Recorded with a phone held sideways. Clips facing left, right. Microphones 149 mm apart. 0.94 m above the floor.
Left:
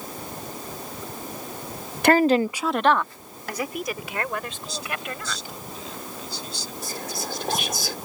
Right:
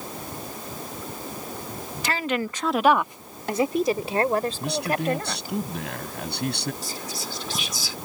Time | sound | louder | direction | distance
2.0 | a woman speaking | left 10 dB | 60° left (ahead or behind) | ?
4.6 | a man speaking | right 8 dB | 70° right (ahead or behind) | ?
6.8 | whispering | left 2 dB | 60° left (ahead or behind) | ?